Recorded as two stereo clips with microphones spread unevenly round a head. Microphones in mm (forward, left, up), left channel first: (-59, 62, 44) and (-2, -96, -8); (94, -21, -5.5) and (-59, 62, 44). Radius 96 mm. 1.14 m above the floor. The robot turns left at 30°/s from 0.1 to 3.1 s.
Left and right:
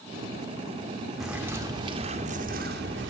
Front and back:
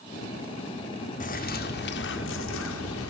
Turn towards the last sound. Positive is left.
turn(degrees=-35)